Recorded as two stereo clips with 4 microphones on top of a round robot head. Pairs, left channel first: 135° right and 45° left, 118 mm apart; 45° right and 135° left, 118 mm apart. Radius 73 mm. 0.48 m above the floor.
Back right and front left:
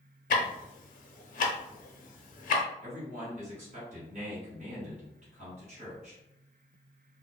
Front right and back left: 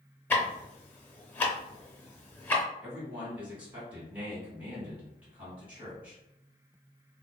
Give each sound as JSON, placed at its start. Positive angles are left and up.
{"t": 0.3, "sound": "ticking", "azimuth_deg": -125, "distance_m": 0.6}
{"t": 2.8, "sound": "a man speaking", "azimuth_deg": 55, "distance_m": 1.8}